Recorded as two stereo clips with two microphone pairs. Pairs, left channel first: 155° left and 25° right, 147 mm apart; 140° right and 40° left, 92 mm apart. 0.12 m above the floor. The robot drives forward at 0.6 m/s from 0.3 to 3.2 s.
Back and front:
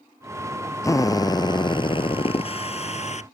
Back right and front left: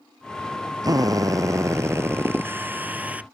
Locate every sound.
0.8 s a drill: 90° left; by 3.3 s 120° left